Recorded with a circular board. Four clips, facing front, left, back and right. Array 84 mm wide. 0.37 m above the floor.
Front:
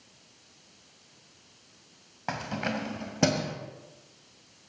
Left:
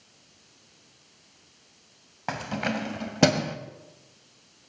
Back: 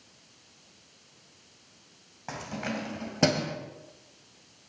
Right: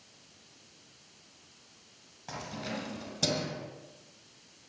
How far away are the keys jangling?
About 1.5 m.